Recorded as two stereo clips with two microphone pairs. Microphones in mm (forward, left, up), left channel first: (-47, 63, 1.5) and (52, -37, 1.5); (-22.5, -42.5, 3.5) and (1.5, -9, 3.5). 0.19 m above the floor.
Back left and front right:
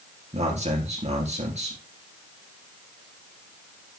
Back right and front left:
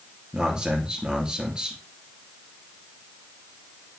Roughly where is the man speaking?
Ahead.